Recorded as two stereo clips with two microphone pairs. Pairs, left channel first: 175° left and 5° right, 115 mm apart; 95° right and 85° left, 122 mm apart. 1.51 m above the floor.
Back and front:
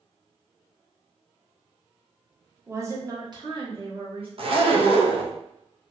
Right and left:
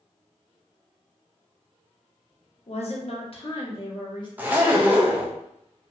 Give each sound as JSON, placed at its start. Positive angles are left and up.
{"t": 2.7, "sound": "a woman speaking", "azimuth_deg": -80, "distance_m": 0.7}
{"t": 4.4, "sound": "a zipper", "azimuth_deg": 15, "distance_m": 0.5}